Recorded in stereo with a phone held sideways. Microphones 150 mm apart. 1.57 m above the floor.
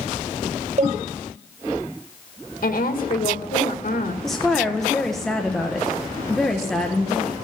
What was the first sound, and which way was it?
A cowbell, 50° right (ahead or behind).